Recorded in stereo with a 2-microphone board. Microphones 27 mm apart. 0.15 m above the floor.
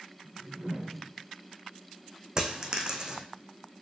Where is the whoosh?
50° right (ahead or behind), 1.0 m.